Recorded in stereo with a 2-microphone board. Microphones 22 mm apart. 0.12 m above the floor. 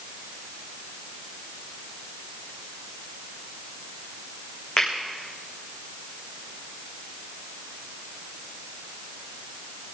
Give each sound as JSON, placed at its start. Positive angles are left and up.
{"t": 4.8, "sound": "a finger snap", "side_deg": 30, "distance_m": 6.0}